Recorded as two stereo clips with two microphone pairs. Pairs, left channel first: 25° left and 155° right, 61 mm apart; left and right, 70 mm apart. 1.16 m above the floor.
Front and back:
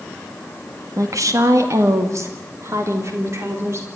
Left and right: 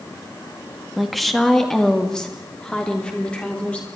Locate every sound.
1.0 s a woman speaking: straight behind, 1.8 m; by 3.9 s 165° left, 3.5 m